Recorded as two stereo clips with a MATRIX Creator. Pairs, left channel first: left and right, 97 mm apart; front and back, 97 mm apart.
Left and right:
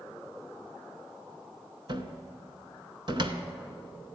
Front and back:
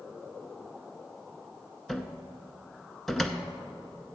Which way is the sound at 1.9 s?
85° right.